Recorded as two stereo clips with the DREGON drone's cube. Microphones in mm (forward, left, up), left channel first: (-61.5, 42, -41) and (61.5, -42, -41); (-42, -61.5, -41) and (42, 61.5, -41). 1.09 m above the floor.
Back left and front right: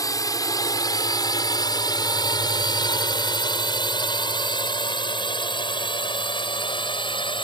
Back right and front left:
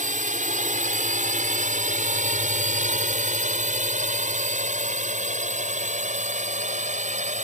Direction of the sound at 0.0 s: 80° left.